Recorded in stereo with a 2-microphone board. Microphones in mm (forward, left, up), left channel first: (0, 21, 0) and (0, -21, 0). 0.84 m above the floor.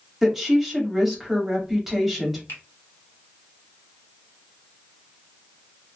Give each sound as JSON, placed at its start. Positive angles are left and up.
{"t": 0.2, "sound": "a woman speaking", "side_deg": -10, "distance_m": 1.7}
{"t": 2.5, "sound": "a finger snap", "side_deg": 70, "distance_m": 2.0}